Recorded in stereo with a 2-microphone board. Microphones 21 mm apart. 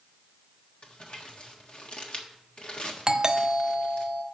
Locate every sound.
0.8 s crumpling: 50° left (ahead or behind), 1.4 m
3.1 s a doorbell: 35° right (ahead or behind), 0.6 m